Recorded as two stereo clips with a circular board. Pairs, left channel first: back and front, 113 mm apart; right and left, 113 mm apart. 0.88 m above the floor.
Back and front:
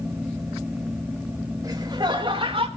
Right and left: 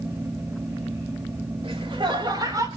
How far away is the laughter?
About 3.5 m.